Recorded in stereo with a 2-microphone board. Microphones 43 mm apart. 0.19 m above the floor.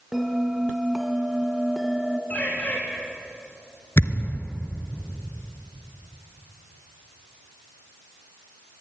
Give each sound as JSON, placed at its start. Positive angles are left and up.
{"t": 0.1, "sound": "a bell", "side_deg": -5, "distance_m": 1.6}
{"t": 2.3, "sound": "a bird", "side_deg": 35, "distance_m": 5.5}
{"t": 4.0, "sound": "a thud", "side_deg": 60, "distance_m": 1.5}